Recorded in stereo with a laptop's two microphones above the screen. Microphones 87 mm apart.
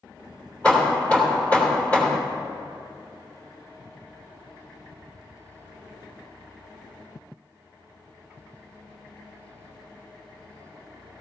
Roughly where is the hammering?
Centre.